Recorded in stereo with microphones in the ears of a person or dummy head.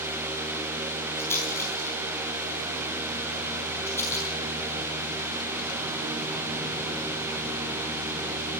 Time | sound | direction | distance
1.2 | a rattle | 15° left (ahead or behind) | 4.5 m